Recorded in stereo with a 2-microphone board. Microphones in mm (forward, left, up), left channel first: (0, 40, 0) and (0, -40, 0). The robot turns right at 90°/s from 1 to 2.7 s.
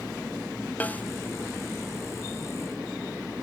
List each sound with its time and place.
0.8 s a snare drum: 20° left (ahead or behind), 0.7 m